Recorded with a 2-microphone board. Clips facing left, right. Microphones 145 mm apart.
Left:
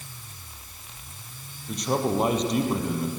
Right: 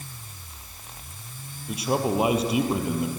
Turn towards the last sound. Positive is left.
turn(degrees=-5)  # may be behind; listen again after turning